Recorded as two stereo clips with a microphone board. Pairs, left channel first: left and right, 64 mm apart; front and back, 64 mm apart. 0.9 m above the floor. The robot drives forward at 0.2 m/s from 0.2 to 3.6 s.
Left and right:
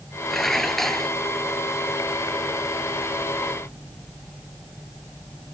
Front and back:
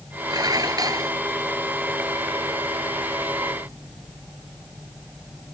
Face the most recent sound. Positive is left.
turn(degrees=175)